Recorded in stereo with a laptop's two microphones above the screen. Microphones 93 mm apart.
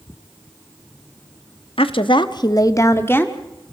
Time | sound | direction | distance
1.8 | a woman speaking | 75° left (ahead or behind) | 1.3 m